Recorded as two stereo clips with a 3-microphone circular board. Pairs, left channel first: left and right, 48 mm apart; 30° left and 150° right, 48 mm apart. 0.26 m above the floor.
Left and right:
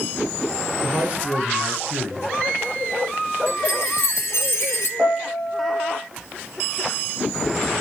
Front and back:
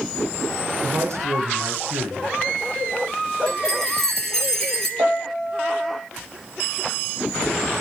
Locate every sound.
0.8 s a man speaking: 150° right, 3 m
3.5 s a chime: 110° left, 2 m
5.0 s a piano: 125° right, 4 m